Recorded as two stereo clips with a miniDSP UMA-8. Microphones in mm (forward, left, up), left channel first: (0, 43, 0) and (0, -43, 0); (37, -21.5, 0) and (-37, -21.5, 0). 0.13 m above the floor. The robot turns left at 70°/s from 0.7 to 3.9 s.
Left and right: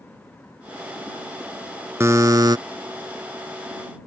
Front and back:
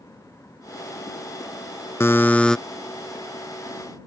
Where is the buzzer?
40° right; by 2.6 s 80° right.